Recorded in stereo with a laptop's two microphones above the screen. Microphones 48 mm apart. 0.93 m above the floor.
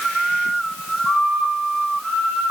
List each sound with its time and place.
Only background noise.